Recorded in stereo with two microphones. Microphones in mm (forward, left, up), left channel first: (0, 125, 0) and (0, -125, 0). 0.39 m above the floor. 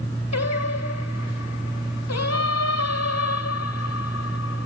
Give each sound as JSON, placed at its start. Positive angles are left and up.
{"t": 0.3, "sound": "singing", "side_deg": 80, "distance_m": 0.9}